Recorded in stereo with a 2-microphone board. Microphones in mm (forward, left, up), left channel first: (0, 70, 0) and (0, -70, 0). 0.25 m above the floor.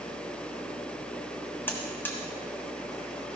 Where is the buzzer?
15° left (ahead or behind), 1.6 m.